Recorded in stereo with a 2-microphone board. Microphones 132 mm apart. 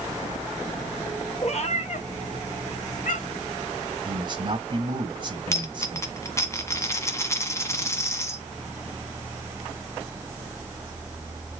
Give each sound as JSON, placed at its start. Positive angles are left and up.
{"t": 1.4, "sound": "a cat meowing", "side_deg": 50, "distance_m": 1.8}
{"t": 4.0, "sound": "a man speaking", "side_deg": -35, "distance_m": 1.9}
{"t": 5.5, "sound": "a dropped coin", "side_deg": 20, "distance_m": 1.4}